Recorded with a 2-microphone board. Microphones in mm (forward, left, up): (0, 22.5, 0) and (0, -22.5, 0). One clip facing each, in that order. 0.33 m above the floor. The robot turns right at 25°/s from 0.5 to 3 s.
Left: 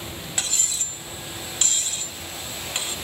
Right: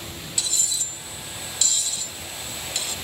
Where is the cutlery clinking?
45° left (ahead or behind), 0.9 m; by 3.0 s 30° left (ahead or behind), 0.9 m.